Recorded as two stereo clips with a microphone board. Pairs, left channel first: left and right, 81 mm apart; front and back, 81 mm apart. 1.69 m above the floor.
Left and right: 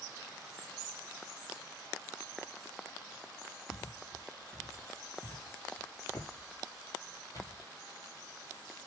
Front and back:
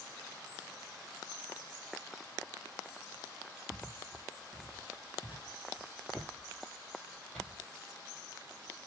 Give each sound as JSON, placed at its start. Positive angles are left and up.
{"t": 3.7, "sound": "footsteps", "azimuth_deg": 175, "distance_m": 2.0}